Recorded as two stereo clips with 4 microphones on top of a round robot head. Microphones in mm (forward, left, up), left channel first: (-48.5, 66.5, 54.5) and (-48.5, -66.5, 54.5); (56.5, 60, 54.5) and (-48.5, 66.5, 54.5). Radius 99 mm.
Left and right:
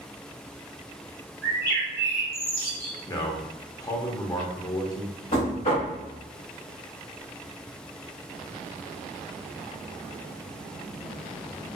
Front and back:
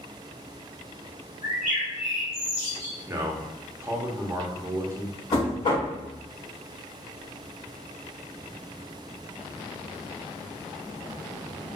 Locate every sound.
1.4 s a bird: 60° right, 0.6 m
3.1 s a man speaking: 130° left, 0.7 m
5.3 s knocking: 40° left, 1.2 m